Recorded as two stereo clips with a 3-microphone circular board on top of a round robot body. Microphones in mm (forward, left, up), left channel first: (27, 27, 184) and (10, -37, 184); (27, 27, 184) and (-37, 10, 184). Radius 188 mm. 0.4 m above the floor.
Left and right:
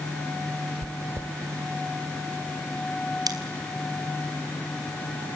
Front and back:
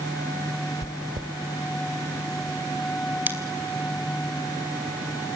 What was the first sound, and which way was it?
Chewing, 160° right.